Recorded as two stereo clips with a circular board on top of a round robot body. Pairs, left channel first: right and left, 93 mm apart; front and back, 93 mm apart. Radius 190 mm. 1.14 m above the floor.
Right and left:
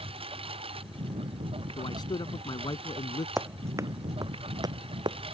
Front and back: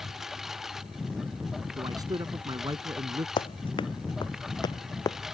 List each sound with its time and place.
0.0 s a lawn mower: 95° left
1.8 s a man speaking: 130° right
3.4 s running footsteps: 25° left; by 5.2 s 50° left